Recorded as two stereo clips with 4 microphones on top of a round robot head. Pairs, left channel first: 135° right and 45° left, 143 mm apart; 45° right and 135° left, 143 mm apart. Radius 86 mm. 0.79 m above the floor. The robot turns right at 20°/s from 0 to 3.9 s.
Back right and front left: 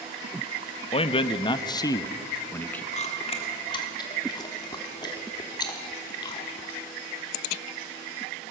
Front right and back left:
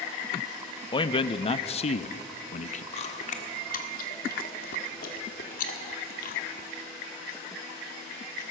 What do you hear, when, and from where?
0.9 s a man speaking: 95° right, 0.6 m; by 2.8 s 55° right, 0.6 m
2.9 s chewing: 90° right, 1.3 m; by 6.7 s 70° right, 1.3 m